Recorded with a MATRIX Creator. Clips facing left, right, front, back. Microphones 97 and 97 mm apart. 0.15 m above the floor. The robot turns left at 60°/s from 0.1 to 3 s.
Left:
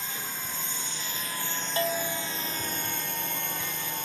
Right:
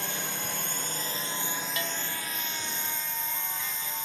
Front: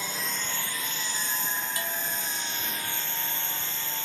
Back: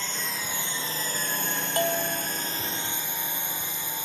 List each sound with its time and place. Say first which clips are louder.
0.0 s a drone: right 3 dB, even; 80° right; by 4.1 s 105° left
1.8 s a bell: left 6 dB, back 8 dB; 145° left; by 2.3 s 110° left